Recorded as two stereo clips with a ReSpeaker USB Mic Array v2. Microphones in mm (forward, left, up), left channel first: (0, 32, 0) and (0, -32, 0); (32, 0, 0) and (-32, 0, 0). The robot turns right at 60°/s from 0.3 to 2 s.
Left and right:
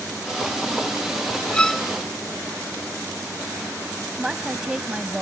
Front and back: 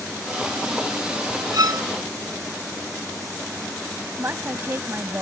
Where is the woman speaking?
165° right.